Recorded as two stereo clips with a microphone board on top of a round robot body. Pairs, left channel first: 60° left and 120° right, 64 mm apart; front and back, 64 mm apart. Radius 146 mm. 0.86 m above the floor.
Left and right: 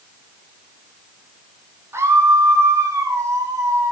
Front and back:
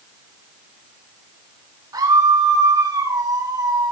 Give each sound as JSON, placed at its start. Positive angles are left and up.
{"t": 1.9, "sound": "a scream", "azimuth_deg": -165, "distance_m": 8.5}